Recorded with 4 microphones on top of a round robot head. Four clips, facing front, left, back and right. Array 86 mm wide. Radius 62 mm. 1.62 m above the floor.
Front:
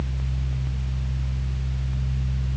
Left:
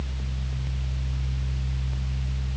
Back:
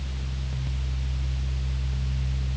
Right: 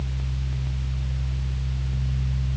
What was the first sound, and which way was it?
Only background noise.